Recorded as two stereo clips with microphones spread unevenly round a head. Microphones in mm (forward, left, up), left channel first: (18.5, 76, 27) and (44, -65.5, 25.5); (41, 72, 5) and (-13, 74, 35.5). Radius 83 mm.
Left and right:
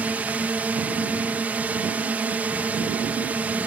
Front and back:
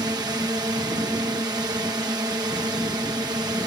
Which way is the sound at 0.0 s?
160° right.